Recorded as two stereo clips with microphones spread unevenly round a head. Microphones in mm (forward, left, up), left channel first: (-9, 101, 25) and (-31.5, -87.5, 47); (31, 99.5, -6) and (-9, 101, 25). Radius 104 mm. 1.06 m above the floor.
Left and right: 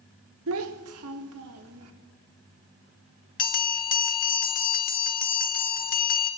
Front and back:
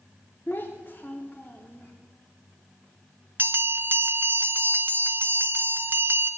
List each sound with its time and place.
0.5 s a child speaking: 90° right, 0.6 m; by 1.9 s 95° right, 1.4 m
3.4 s a bell: 115° left, 1.0 m